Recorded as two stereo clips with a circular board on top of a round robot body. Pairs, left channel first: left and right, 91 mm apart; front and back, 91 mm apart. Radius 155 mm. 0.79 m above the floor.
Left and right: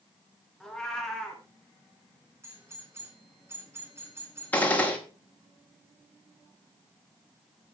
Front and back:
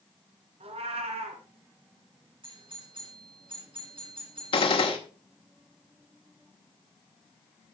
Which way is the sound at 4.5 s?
15° left.